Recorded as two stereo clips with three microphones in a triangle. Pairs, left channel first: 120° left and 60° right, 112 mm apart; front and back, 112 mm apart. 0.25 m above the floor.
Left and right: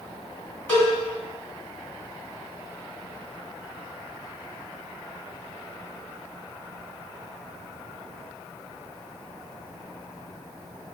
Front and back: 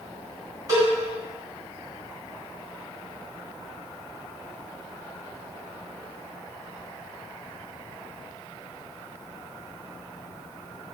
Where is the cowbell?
170° left, 1.6 m.